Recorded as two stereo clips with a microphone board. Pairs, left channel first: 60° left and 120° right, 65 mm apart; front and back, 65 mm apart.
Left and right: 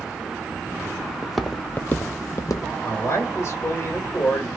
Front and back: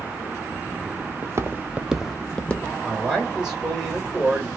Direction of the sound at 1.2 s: 160° left.